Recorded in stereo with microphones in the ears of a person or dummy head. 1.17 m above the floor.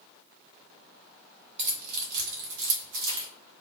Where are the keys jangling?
25° right (ahead or behind), 0.6 m; by 3.3 s 55° right (ahead or behind), 1.2 m.